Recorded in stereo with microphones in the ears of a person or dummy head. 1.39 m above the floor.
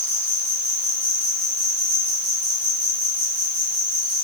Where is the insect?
70° right (ahead or behind), 4.5 m.